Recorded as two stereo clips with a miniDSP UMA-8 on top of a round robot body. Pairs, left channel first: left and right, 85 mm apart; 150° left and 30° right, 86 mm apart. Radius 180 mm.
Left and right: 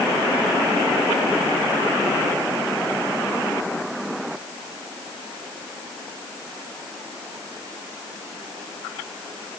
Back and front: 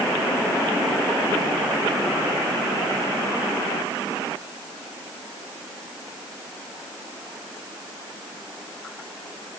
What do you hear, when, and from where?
Only background noise.